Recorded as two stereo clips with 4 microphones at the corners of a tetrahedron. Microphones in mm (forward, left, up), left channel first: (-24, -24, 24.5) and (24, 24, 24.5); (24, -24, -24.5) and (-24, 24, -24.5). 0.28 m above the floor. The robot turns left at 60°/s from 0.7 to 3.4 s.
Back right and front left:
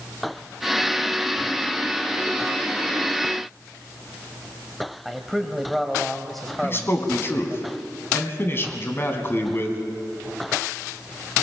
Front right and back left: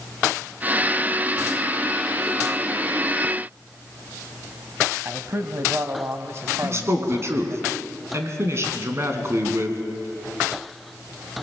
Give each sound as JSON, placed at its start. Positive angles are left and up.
{"t": 5.0, "sound": "a man speaking", "azimuth_deg": 135, "distance_m": 1.4}
{"t": 6.6, "sound": "a man speaking", "azimuth_deg": 175, "distance_m": 3.0}